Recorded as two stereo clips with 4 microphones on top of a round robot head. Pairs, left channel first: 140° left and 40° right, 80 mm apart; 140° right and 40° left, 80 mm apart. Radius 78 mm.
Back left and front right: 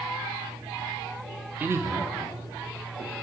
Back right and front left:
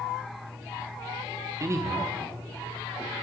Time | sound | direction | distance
1.6 | a man speaking | 15° left | 0.8 m